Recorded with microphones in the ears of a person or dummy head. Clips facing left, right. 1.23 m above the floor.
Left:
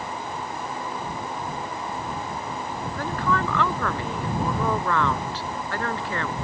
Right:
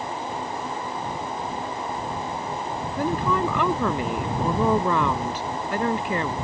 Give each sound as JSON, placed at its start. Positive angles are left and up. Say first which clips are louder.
{"t": 3.0, "sound": "a woman speaking", "louder": "right 3 dB", "side_deg": -5}